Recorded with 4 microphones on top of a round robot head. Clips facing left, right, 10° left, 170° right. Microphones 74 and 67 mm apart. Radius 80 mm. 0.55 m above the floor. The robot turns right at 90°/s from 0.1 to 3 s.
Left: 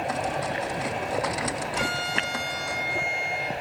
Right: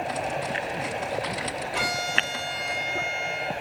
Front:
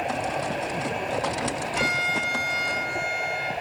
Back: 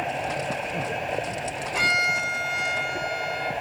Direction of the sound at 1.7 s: 125° right.